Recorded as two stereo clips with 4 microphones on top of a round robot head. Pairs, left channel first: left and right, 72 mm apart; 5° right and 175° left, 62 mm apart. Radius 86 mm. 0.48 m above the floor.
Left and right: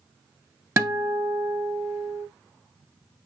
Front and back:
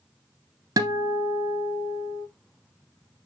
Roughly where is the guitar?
Behind right.